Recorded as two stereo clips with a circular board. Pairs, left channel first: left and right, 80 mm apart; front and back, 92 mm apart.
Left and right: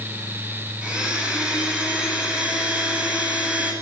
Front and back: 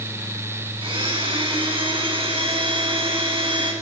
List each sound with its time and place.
0.8 s a blender: 165° right, 8.5 m